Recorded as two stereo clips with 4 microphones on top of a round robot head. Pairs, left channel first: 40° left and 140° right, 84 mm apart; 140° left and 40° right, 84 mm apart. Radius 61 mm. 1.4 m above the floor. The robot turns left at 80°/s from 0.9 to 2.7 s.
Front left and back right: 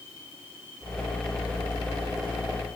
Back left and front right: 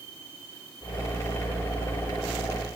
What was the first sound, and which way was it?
Only background noise.